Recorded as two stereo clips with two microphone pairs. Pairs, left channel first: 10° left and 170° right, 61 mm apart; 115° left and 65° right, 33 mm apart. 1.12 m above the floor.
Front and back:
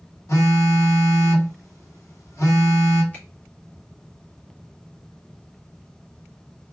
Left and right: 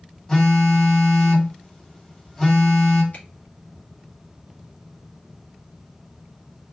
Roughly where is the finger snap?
Left.